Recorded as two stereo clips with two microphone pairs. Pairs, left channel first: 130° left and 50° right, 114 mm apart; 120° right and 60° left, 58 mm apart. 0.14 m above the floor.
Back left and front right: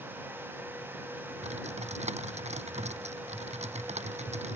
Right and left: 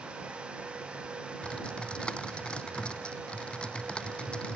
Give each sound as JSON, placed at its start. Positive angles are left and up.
{"t": 1.4, "sound": "typing on a keyboard", "azimuth_deg": -45}